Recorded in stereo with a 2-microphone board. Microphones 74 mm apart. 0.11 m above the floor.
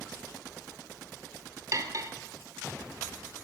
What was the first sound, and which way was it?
Cutlery clinking, 45° right (ahead or behind).